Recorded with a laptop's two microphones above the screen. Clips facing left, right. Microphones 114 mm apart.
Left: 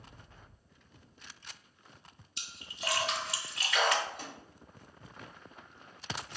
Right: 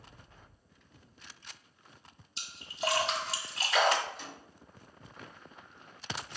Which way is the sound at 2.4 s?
30° right (ahead or behind).